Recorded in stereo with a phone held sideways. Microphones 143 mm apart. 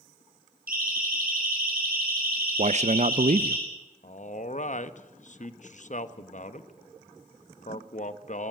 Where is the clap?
I don't hear a clap.